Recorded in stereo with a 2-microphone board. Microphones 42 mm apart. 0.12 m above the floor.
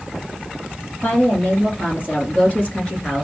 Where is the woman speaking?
50° left (ahead or behind), 2 m; by 3.2 s 30° left (ahead or behind), 1.8 m.